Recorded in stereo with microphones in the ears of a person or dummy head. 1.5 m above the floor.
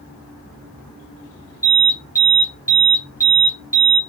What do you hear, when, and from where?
1.6 s an alarm: 15° right (ahead or behind), 1.4 m